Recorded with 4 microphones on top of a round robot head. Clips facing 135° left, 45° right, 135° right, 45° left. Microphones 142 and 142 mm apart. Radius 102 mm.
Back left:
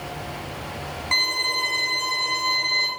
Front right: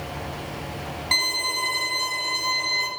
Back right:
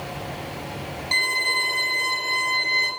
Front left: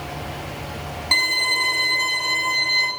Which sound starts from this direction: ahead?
A violin, at 1.1 s.